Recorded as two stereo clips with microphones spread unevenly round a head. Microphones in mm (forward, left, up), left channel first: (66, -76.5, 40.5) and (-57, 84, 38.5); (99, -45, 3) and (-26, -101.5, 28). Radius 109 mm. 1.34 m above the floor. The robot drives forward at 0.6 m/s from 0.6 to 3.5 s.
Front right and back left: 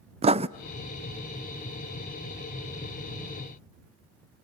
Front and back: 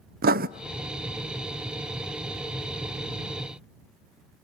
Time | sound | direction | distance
0.2 | writing | 175° right | 0.6 m